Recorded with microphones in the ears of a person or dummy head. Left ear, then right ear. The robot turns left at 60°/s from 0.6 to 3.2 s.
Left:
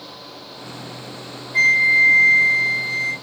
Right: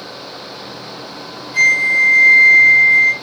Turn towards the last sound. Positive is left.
turn(degrees=-160)